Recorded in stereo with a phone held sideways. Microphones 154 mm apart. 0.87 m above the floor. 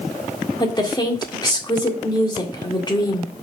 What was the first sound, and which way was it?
A woman speaking, 30° left (ahead or behind).